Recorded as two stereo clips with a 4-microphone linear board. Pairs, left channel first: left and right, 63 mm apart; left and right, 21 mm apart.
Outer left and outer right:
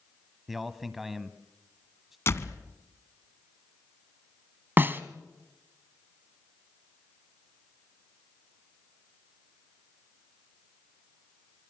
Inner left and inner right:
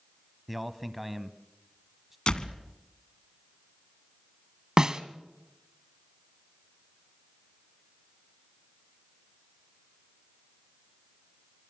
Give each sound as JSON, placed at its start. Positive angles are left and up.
{"t": 0.5, "sound": "a man speaking", "side_deg": -5, "distance_m": 1.2}
{"t": 2.3, "sound": "a door slam", "side_deg": 45, "distance_m": 1.2}
{"t": 4.8, "sound": "a snare drum", "side_deg": -35, "distance_m": 1.1}